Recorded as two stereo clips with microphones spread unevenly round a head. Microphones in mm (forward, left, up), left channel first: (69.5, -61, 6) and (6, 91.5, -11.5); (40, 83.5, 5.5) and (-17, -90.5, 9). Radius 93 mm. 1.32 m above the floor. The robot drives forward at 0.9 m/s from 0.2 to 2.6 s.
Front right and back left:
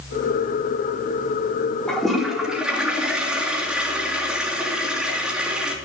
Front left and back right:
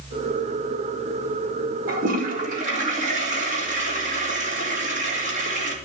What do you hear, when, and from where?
1.9 s a toilet flushing: 155° right, 1.5 m; by 5.8 s 160° right, 2 m